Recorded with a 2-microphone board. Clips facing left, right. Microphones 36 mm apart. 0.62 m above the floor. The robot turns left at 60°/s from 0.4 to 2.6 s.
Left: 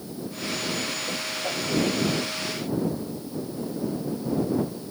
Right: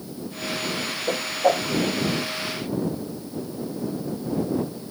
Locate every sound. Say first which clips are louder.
1.1 s a whoosh: right 8 dB; 65° right (ahead or behind); by 1.7 s 80° right